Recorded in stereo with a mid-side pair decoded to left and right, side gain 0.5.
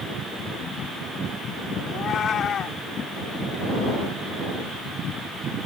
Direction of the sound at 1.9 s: 55° left.